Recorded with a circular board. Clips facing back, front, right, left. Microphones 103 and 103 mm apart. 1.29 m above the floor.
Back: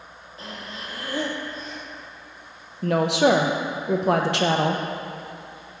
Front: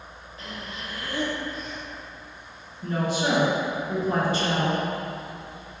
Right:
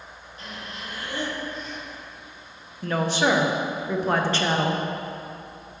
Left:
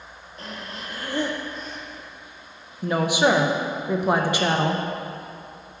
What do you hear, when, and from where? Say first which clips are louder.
0.4 s breathing: back 1 dB, left 2 dB; 130° left, 1.0 m
2.8 s a woman speaking: back 7 dB, left 3 dB; 170° left, 0.7 m